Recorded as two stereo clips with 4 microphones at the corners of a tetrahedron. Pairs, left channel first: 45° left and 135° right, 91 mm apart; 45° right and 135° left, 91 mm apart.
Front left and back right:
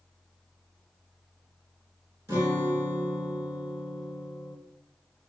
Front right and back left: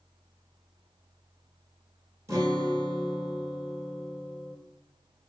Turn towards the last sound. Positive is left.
turn(degrees=175)